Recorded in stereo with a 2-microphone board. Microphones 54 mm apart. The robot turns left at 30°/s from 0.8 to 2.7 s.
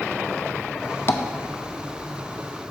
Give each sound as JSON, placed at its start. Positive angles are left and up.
{"t": 1.1, "sound": "tapping", "side_deg": 50, "distance_m": 0.5}